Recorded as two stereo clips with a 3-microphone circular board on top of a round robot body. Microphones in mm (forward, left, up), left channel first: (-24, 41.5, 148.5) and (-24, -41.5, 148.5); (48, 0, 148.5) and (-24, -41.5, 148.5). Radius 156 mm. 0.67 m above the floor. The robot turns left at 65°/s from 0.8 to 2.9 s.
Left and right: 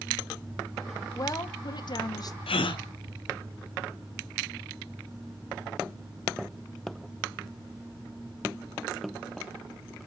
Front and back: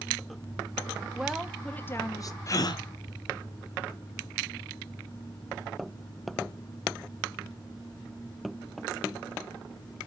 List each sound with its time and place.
1.1 s a woman speaking: 135° left, 1.4 m; by 2.4 s 55° left, 1.4 m
2.5 s a gasp: 85° left, 0.9 m; by 2.8 s 60° left, 0.9 m